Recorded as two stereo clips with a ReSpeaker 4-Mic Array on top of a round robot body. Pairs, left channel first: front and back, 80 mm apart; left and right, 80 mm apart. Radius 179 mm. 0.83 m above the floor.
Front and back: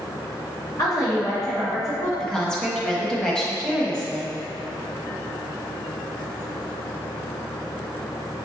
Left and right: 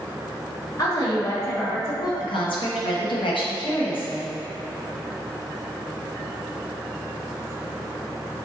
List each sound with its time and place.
0.8 s a woman speaking: 45° left, 1.4 m
2.2 s a woman speaking: 80° left, 1.2 m